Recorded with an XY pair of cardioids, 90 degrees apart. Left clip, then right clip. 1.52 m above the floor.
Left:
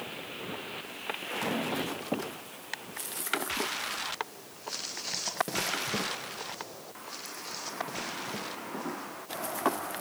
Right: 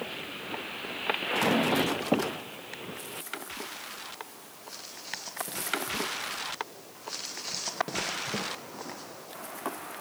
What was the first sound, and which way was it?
Only background noise.